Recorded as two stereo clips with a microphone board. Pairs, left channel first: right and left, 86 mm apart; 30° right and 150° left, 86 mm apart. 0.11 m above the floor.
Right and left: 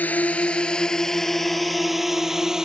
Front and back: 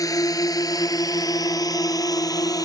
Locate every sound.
0.0 s a drone: 25° right; by 2.7 s 5° left